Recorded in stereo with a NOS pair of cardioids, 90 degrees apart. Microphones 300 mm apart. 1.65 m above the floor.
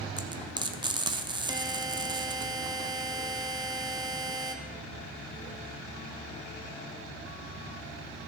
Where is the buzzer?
10° right, 0.9 m.